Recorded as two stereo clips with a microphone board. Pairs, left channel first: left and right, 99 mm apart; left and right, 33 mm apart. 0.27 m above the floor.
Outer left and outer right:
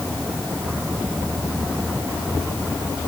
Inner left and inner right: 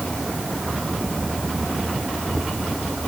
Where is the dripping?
I don't hear dripping.